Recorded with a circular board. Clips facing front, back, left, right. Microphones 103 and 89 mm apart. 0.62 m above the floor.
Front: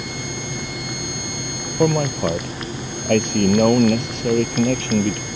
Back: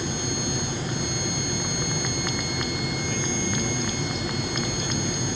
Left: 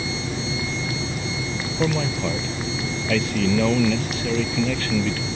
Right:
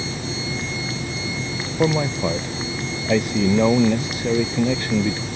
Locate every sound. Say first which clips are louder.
1.8 s a man speaking: front 11 dB, right 4 dB; 20° right